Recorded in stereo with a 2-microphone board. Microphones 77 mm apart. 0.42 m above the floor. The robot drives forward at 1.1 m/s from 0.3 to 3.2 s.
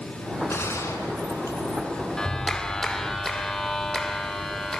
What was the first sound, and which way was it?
A gunshot, 35° left (ahead or behind).